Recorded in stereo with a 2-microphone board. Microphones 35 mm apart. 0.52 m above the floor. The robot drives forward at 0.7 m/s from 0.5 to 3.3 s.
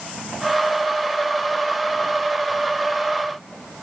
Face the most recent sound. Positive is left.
No sound to turn to.